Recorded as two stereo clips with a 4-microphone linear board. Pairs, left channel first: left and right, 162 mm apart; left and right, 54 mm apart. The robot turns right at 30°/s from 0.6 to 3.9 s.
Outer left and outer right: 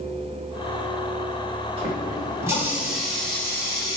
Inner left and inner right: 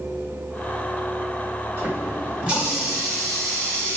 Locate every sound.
1.8 s a running tap: 35° right, 1.6 m; by 4.0 s 25° left, 1.6 m